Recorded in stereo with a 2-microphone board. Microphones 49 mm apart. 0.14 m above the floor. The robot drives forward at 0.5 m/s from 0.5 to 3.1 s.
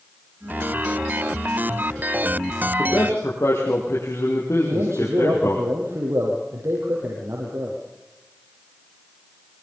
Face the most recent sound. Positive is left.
turn(degrees=-65)  # may be behind; listen again after turning